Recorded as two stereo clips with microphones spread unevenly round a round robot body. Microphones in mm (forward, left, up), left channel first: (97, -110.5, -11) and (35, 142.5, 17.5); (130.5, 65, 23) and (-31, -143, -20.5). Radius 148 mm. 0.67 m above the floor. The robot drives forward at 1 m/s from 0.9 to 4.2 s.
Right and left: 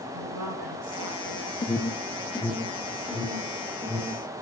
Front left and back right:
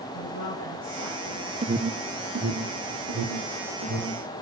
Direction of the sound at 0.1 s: 105° left.